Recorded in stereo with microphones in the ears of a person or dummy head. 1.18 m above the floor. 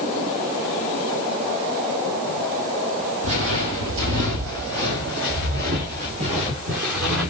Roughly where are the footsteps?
Right.